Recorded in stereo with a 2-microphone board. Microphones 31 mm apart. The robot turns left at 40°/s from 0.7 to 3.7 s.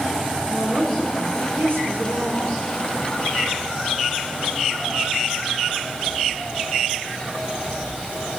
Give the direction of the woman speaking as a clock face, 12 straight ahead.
1 o'clock.